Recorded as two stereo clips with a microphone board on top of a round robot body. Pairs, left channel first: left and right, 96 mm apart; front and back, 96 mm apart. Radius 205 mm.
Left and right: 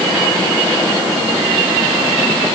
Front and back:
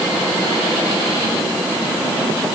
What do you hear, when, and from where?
Only background noise.